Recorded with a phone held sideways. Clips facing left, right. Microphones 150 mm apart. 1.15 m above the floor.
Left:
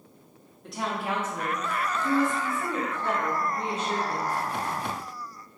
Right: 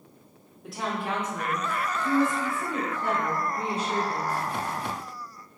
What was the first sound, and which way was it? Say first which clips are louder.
A woman speaking: even; 5° right (ahead or behind).